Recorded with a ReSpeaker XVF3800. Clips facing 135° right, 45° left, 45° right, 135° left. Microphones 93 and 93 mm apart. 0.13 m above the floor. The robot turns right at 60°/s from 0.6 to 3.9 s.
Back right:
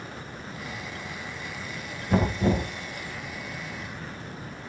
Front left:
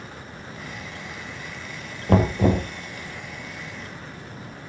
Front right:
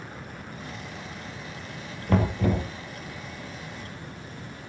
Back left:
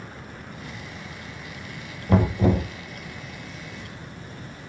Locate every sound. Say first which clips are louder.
2.1 s knocking: front left 4 dB, back left 4 dB; 50° left, 2.5 m; by 2.7 s 85° left, 2.5 m